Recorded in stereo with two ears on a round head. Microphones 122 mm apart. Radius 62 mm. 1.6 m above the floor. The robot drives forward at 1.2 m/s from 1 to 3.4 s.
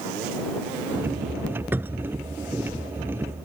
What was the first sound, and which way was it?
A cupboard door, 15° right (ahead or behind).